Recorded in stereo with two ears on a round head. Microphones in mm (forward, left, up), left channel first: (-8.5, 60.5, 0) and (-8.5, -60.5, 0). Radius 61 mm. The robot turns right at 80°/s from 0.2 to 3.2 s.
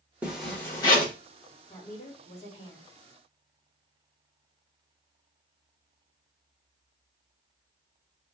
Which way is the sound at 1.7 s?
45° left.